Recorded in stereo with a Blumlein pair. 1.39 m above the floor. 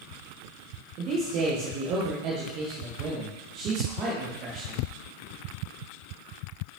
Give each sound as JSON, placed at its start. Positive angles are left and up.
{"t": 1.0, "sound": "a man speaking", "azimuth_deg": -35, "distance_m": 1.1}